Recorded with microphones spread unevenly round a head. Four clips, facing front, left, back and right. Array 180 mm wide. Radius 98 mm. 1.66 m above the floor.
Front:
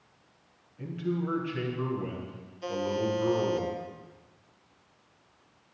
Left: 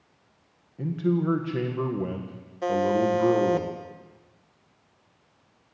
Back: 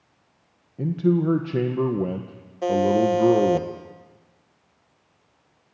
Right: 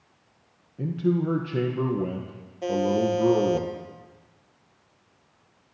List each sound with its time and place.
0.8 s a man speaking: 165° right, 1.6 m
2.6 s a buzzer: 175° right, 1.5 m